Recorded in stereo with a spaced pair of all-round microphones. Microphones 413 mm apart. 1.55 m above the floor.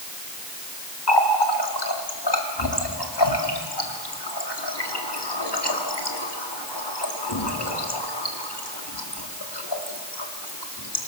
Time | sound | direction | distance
1.1 | a running tap | 70° left (ahead or behind) | 2 m